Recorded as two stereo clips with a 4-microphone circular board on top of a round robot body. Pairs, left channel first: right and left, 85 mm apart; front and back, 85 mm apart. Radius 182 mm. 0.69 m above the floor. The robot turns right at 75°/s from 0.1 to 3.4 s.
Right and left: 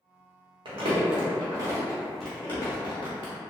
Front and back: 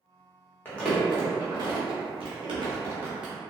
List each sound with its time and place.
0.7 s crumpling: 70° left, 0.6 m; by 3.3 s 90° right, 0.6 m